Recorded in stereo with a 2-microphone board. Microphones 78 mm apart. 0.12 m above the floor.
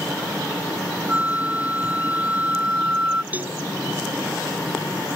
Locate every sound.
1.1 s a flute: 20° right (ahead or behind)
3.3 s a cowbell: 20° right (ahead or behind)